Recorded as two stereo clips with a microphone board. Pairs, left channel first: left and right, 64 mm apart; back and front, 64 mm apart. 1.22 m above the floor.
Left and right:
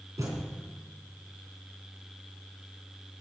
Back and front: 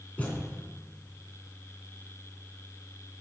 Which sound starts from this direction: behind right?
A thud, at 0.2 s.